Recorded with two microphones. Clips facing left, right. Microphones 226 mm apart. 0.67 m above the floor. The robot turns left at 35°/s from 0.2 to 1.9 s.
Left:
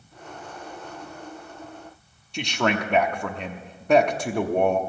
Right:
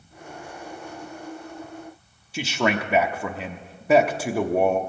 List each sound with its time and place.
2.3 s a man speaking: 5° right (ahead or behind), 0.9 m